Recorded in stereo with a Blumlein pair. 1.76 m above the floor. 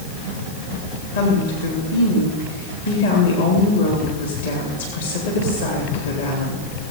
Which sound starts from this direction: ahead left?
A woman speaking, at 1.1 s.